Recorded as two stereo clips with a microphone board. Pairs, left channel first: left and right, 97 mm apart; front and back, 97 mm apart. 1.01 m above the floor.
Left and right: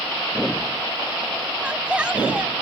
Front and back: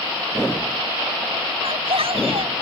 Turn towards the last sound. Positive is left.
turn(degrees=-170)